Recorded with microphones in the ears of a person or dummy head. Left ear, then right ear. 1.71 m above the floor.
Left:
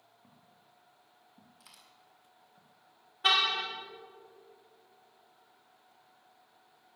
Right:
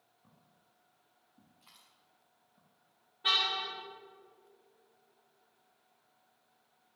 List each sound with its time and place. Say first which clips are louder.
0.2 s footsteps: left 6 dB; 25° left (ahead or behind), 3 m; by 2.6 s 35° left (ahead or behind), 2.5 m
1.6 s a dropped coin: left 3 dB; 75° left (ahead or behind), 4.5 m
3.2 s a car horn: left 3 dB; 45° left (ahead or behind), 2.5 m